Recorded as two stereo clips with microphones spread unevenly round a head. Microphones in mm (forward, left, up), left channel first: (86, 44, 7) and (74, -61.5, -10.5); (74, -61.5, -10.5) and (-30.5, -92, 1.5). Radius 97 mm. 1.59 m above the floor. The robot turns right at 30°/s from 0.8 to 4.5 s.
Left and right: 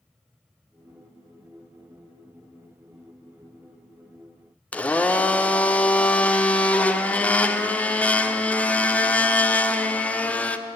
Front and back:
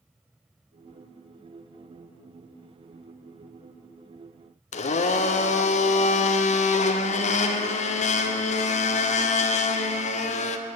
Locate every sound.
4.7 s a blender: 10° left, 0.5 m